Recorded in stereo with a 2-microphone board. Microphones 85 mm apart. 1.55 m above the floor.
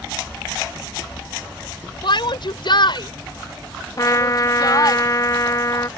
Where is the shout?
65° left (ahead or behind); by 5.0 s 45° left (ahead or behind).